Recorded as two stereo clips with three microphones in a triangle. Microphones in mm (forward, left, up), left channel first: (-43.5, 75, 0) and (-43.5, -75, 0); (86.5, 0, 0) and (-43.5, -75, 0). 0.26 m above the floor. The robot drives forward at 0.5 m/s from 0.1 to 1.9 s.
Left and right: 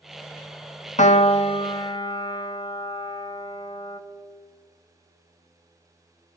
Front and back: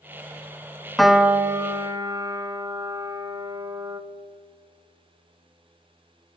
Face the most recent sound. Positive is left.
turn(degrees=145)